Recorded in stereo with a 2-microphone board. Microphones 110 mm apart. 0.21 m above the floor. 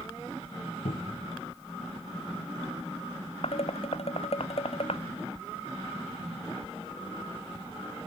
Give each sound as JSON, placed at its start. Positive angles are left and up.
{"t": 0.8, "sound": "a cupboard door", "side_deg": 75}
{"t": 3.4, "sound": "dishes clattering", "side_deg": 65}